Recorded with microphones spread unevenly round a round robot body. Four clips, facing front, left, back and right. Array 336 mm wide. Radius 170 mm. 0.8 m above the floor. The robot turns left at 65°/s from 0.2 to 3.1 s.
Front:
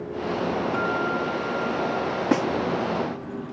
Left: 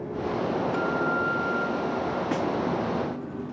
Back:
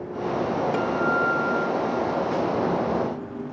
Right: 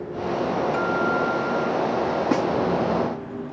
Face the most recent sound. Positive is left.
turn(degrees=-80)